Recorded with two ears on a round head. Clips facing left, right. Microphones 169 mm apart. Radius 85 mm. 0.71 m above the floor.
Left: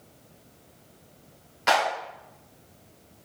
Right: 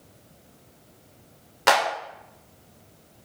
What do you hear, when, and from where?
1.7 s a clap: 65° right (ahead or behind), 2.5 m